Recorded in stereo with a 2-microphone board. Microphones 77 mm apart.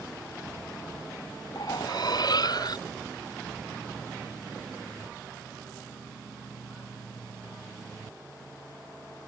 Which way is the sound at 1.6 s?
60° left (ahead or behind).